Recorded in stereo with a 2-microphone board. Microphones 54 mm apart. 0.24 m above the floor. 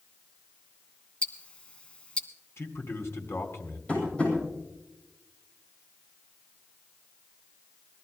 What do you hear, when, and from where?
1.2 s ticking: 20° left (ahead or behind), 0.9 m
2.6 s a man speaking: 50° left (ahead or behind), 2.5 m
3.9 s tapping: 20° left (ahead or behind), 8 m